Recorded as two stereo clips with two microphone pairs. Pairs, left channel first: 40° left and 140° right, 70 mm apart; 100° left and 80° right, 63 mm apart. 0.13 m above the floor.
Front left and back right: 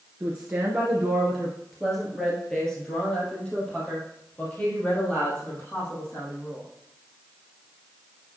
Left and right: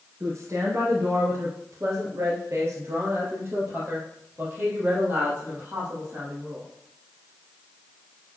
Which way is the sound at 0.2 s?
80° right.